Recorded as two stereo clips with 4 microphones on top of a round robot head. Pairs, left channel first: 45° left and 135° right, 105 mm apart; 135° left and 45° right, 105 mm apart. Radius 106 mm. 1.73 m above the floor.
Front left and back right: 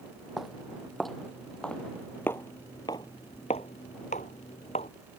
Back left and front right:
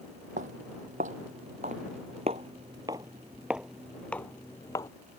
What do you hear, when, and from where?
0.4 s footsteps: 50° right; by 4.9 s 80° left